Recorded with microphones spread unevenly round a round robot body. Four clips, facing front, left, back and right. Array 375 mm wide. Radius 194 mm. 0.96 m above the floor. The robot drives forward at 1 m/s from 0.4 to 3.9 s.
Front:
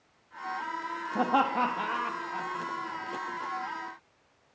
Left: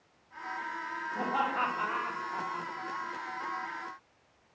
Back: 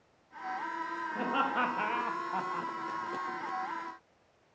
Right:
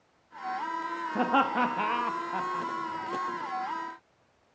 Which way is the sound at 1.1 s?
50° right.